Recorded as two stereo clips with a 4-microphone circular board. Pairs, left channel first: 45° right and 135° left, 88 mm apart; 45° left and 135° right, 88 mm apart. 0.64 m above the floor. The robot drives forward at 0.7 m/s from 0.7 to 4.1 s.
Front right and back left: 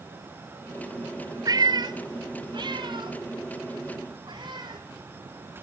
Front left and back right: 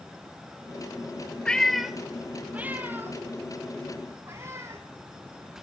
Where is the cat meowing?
120° left, 0.8 m; by 4.8 s 165° left, 2.5 m.